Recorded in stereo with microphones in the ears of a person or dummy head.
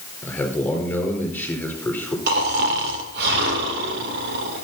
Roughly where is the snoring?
Right.